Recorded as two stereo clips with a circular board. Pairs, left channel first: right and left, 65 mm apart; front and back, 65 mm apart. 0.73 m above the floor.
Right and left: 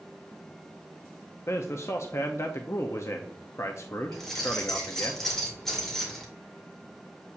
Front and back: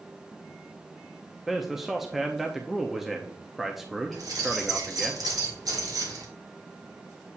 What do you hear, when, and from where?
1.5 s a man speaking: 95° right, 0.6 m
4.1 s keys jangling: 175° right, 2.0 m